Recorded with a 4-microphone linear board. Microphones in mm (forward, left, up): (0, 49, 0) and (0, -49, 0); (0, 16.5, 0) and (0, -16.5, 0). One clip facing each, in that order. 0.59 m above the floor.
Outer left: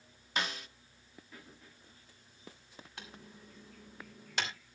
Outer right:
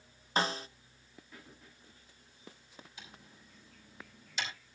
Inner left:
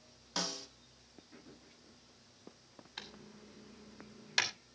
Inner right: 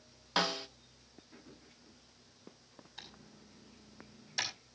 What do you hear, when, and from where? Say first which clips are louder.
0.4 s a snare drum: outer right 5 dB, inner right 7 dB; 35° right (ahead or behind), 0.6 m
3.0 s typing on a keyboard: outer left 4 dB, inner left 4 dB; 65° left (ahead or behind), 2.5 m